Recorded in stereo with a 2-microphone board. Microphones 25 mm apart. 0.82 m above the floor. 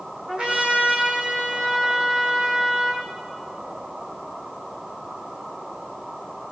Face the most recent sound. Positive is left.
turn(degrees=-55)  # may be behind; listen again after turning